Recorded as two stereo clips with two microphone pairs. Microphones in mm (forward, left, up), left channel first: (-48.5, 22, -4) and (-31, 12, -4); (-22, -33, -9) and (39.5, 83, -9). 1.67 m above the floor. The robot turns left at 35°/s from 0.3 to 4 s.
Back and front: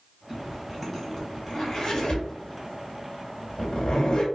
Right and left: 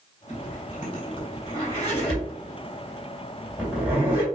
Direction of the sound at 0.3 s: 95° right.